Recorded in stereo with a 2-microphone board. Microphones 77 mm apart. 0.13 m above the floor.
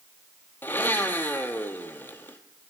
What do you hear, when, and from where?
0.6 s a blender: 25° left (ahead or behind), 0.7 m